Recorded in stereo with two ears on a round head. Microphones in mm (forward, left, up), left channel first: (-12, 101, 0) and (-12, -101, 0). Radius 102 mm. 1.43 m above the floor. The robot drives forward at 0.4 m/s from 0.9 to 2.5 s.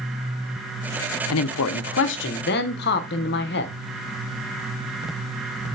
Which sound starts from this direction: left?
A man speaking, at 1.3 s.